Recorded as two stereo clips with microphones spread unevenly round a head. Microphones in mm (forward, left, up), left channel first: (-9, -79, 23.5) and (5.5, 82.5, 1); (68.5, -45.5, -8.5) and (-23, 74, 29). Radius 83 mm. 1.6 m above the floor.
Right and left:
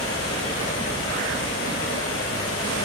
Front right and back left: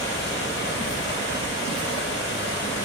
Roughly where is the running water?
Right.